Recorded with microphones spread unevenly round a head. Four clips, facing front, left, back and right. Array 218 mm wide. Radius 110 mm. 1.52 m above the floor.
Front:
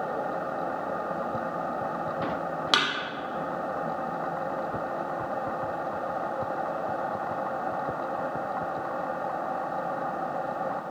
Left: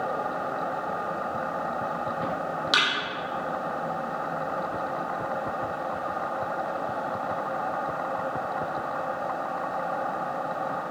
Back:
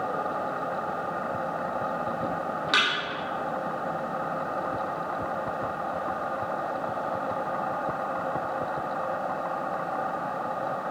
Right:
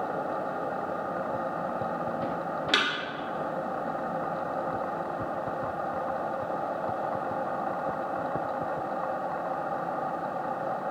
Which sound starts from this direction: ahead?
A thud, at 2.7 s.